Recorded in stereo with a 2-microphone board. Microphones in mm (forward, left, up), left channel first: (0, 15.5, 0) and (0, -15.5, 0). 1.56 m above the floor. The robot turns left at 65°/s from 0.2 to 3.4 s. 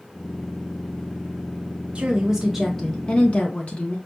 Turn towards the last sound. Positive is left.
turn(degrees=130)